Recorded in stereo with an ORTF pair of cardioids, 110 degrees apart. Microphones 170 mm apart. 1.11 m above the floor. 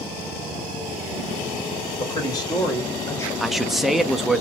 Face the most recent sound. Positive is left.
turn(degrees=0)